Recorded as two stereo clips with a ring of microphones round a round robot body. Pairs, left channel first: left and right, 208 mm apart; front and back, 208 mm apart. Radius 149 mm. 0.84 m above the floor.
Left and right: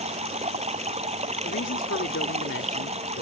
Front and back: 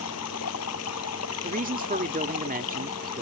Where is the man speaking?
130° left.